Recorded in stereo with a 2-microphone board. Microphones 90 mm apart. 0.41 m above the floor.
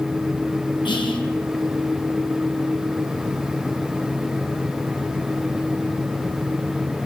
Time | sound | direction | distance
0.8 | whispering | 60° left (ahead or behind) | 2.5 m